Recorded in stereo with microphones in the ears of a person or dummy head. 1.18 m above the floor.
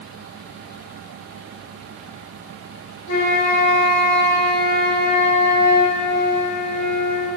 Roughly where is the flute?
Left.